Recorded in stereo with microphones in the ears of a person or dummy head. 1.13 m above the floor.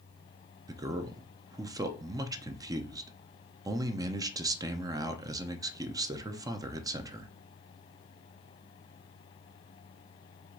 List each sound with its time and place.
0.7 s a man speaking: 20° right (ahead or behind), 0.5 m